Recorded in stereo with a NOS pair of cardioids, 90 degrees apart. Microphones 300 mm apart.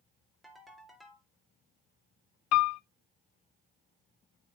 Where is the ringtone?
Straight ahead, 3 m.